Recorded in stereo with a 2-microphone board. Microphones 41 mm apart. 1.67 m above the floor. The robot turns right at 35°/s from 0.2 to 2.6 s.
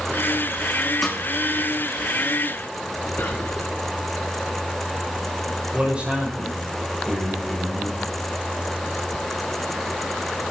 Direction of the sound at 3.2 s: 60° left (ahead or behind).